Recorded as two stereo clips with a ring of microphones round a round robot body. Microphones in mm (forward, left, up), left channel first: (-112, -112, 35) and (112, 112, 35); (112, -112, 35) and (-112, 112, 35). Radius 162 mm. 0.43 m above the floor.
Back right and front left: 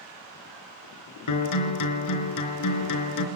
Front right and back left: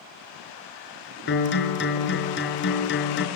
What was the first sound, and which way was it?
A guitar, 100° right.